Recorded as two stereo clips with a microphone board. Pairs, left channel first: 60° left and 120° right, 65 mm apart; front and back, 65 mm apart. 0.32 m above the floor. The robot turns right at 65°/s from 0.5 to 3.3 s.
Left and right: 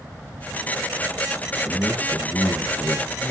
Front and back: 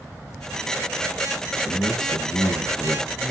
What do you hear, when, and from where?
1.6 s a man speaking: 25° right, 6 m; by 3.3 s 80° left, 6 m